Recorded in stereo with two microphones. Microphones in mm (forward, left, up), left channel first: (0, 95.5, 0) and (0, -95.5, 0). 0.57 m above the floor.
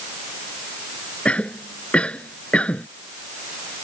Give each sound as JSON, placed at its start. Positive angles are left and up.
{"t": 1.2, "sound": "a cough", "side_deg": 5}